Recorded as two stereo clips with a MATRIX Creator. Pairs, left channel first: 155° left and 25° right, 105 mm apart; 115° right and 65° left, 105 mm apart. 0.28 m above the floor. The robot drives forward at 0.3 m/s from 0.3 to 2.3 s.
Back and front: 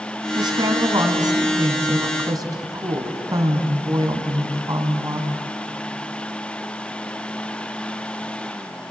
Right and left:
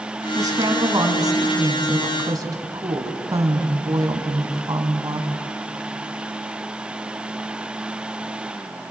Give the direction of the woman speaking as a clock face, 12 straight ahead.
11 o'clock.